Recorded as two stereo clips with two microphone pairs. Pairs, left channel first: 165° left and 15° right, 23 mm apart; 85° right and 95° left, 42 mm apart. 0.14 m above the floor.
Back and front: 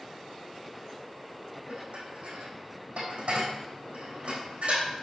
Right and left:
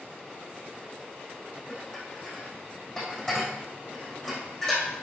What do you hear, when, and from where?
1.7 s dishes clattering: 5° right, 5 m